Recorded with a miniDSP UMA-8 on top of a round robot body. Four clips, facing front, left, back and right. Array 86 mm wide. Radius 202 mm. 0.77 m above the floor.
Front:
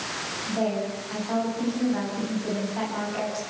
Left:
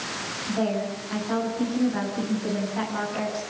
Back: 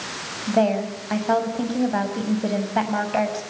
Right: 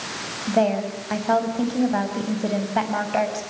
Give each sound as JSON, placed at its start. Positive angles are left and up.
{"t": 0.5, "sound": "a woman speaking", "azimuth_deg": -140, "distance_m": 5.5}